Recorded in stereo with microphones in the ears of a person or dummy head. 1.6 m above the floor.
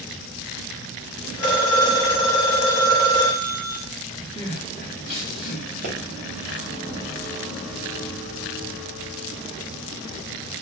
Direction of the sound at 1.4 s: 50° left (ahead or behind).